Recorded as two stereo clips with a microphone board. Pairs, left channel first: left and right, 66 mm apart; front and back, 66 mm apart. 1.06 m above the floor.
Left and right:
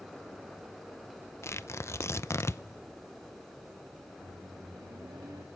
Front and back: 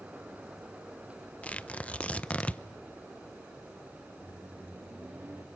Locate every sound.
1.4 s tearing paper: 60° left, 0.6 m
4.2 s a microwave: 125° right, 1.6 m